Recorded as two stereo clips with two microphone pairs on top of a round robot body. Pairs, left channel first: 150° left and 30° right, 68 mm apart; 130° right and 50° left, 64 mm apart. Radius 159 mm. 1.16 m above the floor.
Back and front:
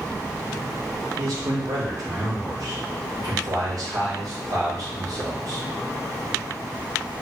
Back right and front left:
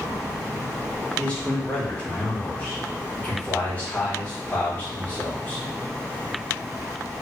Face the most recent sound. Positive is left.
turn(degrees=-60)